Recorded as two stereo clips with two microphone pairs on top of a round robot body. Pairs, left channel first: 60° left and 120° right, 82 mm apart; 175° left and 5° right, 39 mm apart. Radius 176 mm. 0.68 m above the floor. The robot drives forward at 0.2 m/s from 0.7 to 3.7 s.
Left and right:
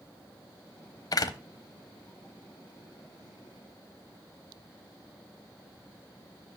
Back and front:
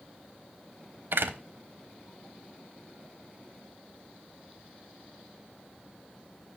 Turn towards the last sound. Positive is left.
turn(degrees=45)